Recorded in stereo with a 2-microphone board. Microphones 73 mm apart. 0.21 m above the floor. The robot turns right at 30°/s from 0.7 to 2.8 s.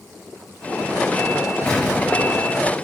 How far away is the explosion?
About 3 m.